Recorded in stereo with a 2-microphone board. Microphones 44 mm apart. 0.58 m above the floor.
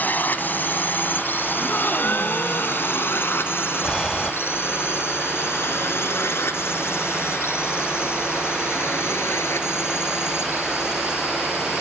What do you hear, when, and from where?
0.0 s a drone: 45° left (ahead or behind); by 11.8 s 80° left
1.6 s a gasp: 55° left (ahead or behind)
3.8 s breathing: 10° left (ahead or behind)